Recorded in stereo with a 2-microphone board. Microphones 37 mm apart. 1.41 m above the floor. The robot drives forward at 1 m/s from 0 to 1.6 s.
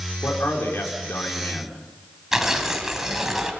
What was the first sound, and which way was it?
A man speaking, 85° left.